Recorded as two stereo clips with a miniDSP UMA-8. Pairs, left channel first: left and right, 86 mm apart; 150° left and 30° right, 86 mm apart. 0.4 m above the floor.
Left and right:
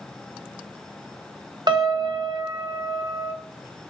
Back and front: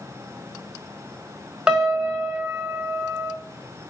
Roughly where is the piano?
Right.